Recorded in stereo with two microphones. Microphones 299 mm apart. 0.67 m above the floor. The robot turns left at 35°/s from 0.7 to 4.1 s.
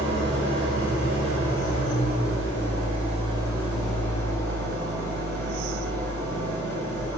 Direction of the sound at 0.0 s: 70° right.